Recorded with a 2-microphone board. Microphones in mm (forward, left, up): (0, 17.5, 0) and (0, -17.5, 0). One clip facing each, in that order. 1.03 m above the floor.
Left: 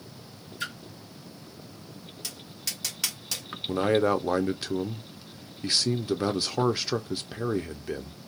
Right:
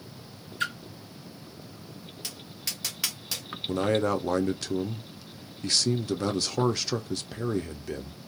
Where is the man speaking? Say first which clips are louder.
Left 2 dB; 20° left (ahead or behind), 0.5 m.